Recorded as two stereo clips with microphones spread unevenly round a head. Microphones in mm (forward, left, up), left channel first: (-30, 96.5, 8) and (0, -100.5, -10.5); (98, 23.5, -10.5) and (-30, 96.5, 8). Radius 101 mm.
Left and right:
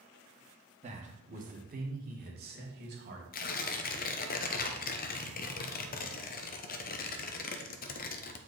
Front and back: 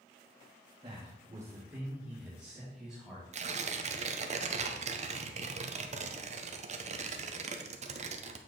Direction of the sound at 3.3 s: 130° left.